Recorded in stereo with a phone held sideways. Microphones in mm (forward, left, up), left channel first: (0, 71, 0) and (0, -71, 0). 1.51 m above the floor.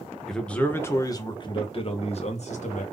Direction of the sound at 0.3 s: Centre (ahead or behind).